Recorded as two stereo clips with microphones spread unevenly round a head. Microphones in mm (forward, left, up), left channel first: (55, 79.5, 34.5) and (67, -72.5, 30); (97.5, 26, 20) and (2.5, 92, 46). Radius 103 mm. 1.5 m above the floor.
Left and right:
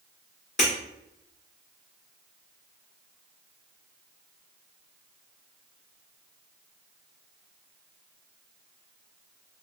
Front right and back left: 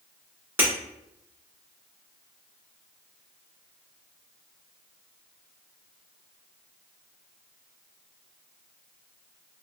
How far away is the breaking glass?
About 2.0 m.